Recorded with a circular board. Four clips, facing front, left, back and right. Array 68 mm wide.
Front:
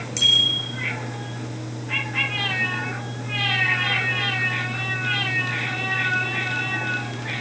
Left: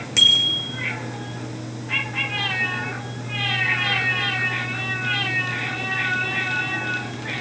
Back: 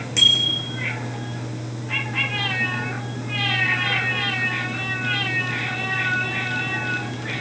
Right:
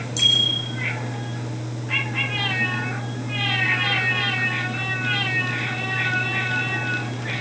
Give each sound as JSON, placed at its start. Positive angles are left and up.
{"t": 0.2, "sound": "a bicycle bell", "azimuth_deg": 110, "distance_m": 5.5}